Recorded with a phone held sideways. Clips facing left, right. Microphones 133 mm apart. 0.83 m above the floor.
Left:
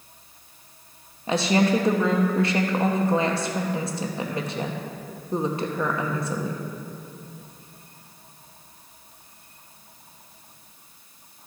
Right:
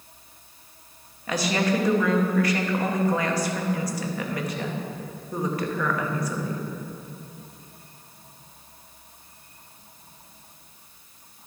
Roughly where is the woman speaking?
Left.